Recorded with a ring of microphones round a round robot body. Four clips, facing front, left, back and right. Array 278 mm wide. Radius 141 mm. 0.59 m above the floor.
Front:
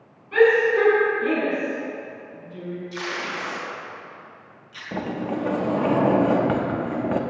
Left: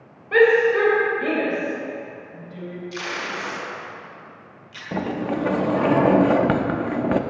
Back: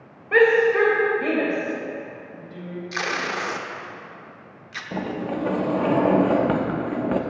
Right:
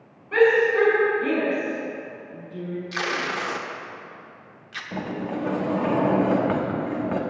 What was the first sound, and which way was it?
A shout, 150° left.